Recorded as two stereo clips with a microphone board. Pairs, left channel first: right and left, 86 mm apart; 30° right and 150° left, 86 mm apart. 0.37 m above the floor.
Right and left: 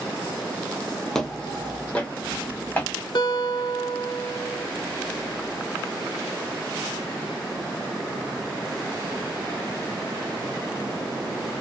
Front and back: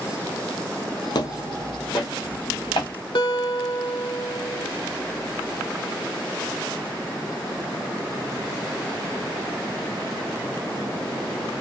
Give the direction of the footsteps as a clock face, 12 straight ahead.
12 o'clock.